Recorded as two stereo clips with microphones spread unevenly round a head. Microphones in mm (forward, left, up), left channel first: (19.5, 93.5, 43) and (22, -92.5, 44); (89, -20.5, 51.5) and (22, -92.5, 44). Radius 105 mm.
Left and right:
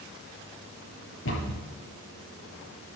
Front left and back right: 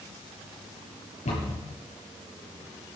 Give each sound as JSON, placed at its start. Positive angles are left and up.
{"t": 1.2, "sound": "a cupboard door", "azimuth_deg": 75, "distance_m": 7.5}